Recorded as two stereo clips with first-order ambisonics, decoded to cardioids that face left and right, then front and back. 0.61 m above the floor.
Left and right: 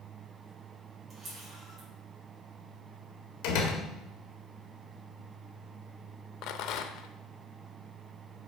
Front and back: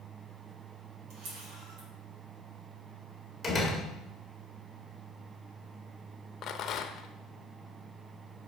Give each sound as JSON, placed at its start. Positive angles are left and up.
{"t": 1.1, "sound": "a camera shutter", "azimuth_deg": -160, "distance_m": 3.5}
{"t": 3.4, "sound": "a door slam", "azimuth_deg": 85, "distance_m": 1.8}
{"t": 6.4, "sound": "a rattle", "azimuth_deg": 55, "distance_m": 0.6}